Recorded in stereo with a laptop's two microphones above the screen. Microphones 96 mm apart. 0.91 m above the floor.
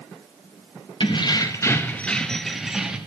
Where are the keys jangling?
60° left (ahead or behind), 0.7 m; by 3.0 s 10° right (ahead or behind), 1.2 m.